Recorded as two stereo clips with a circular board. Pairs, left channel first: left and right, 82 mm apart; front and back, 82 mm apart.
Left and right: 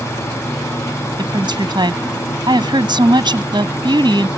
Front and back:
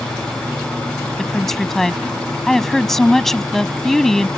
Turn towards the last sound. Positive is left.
turn(degrees=-85)